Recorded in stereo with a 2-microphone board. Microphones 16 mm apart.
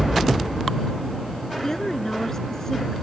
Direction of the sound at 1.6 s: 25° left (ahead or behind).